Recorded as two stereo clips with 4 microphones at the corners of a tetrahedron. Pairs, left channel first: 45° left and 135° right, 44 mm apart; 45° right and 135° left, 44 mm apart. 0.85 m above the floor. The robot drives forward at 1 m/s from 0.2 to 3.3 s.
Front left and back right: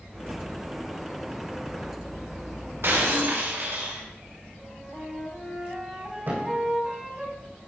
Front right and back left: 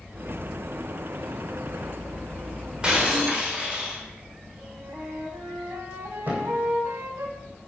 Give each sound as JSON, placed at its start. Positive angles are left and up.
{"t": 2.8, "sound": "breaking glass", "azimuth_deg": -155, "distance_m": 1.8}
{"t": 4.6, "sound": "a flute", "azimuth_deg": 150, "distance_m": 1.7}
{"t": 6.3, "sound": "a thud", "azimuth_deg": -175, "distance_m": 3.0}